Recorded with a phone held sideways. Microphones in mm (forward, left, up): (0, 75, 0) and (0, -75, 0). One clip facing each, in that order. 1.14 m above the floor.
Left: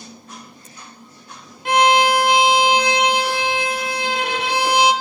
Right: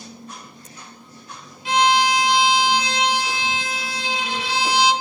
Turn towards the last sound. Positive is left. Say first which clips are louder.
# left 3 dB
turn(degrees=60)  # may be behind; listen again after turning